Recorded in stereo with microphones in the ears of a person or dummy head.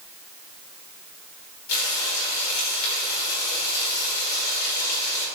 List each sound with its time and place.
1.7 s frying: 65° left (ahead or behind), 4 m